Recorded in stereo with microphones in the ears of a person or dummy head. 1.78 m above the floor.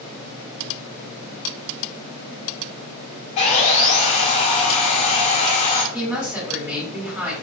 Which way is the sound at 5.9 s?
10° right (ahead or behind).